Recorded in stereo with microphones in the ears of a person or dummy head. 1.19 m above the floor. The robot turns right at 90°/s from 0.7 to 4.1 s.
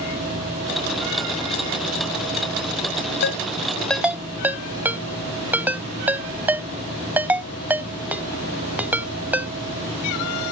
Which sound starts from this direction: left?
A ringtone, at 3.2 s.